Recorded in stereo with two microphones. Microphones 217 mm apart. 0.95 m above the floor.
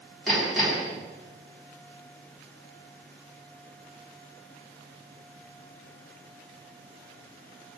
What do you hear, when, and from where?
0.3 s hammering: centre (ahead or behind), 4.5 m